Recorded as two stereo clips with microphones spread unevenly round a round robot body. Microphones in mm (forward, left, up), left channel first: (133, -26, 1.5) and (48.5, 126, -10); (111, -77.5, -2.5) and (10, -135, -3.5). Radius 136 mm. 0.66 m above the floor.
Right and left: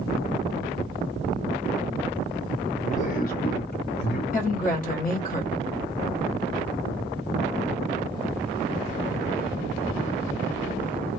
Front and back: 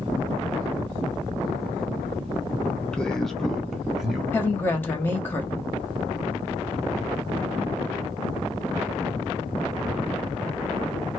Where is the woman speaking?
40° right, 1.1 m.